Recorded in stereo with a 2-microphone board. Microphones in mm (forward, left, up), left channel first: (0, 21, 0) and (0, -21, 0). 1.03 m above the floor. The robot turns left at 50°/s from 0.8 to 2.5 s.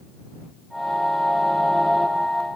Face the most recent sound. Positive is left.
No sound to turn to.